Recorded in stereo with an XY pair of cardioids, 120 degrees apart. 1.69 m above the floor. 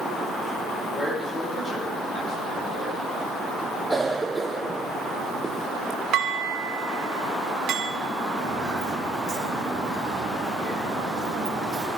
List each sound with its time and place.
0.9 s a man speaking: 30° left, 6.5 m; by 3.0 s 40° left, 8.5 m
3.9 s a cough: 15° right, 1.1 m
6.1 s dishes clattering: 65° right, 2.0 m
8.4 s footsteps: 30° right, 5.5 m